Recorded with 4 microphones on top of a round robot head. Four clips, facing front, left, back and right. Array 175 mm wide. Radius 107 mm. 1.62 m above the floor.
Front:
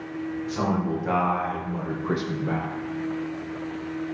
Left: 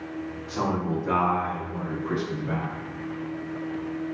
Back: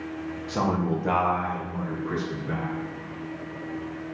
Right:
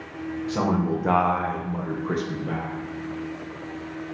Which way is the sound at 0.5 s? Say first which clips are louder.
Right 3 dB, back 1 dB; 135° right.